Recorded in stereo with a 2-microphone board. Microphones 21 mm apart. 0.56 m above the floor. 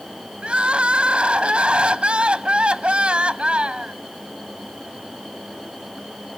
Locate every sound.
0.4 s crying: 70° right (ahead or behind), 0.8 m